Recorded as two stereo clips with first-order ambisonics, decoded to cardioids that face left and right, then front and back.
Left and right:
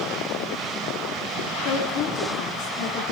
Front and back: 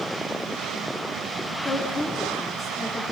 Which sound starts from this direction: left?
A woman speaking, at 1.6 s.